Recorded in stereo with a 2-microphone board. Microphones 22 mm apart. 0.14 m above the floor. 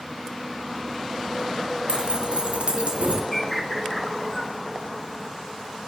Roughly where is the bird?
Centre.